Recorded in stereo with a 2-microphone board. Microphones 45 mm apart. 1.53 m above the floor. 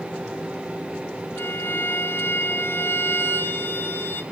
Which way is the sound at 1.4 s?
60° left (ahead or behind).